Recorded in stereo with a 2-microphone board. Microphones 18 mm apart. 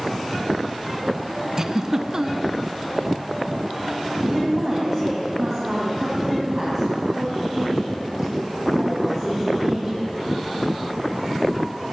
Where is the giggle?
25° right (ahead or behind), 0.8 m.